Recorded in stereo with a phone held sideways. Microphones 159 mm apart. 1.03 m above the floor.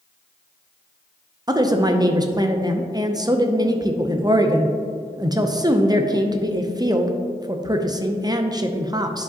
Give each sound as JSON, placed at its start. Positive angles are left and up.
{"t": 1.5, "sound": "a woman speaking", "side_deg": -25, "distance_m": 0.5}